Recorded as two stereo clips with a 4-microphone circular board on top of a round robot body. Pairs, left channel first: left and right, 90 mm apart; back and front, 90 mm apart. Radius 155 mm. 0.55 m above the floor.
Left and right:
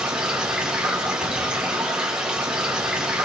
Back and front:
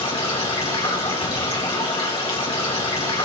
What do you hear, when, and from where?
0.0 s running water: 170° right, 3.5 m